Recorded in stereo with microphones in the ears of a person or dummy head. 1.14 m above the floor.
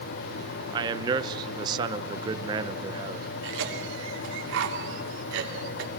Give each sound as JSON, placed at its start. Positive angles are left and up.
{"t": 0.7, "sound": "a man speaking", "side_deg": -25, "distance_m": 0.8}
{"t": 3.4, "sound": "a cough", "side_deg": -75, "distance_m": 3.0}